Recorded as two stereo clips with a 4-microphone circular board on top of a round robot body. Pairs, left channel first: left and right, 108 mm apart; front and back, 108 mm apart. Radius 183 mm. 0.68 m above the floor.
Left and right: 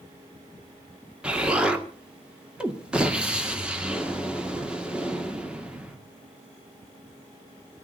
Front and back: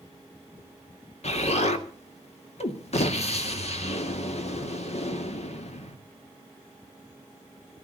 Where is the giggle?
I don't hear a giggle.